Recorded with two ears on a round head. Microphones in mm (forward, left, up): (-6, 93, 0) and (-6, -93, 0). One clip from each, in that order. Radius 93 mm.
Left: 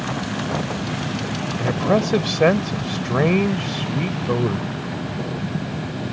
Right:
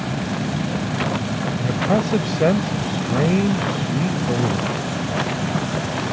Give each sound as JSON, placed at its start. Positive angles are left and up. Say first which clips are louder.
{"t": 1.6, "sound": "a man speaking", "louder": "left 2 dB", "side_deg": 40}